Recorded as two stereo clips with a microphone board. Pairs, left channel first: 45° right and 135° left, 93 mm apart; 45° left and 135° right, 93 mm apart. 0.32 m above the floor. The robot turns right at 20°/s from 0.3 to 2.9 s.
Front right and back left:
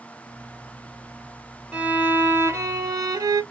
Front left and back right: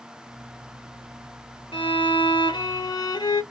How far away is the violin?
About 1.1 m.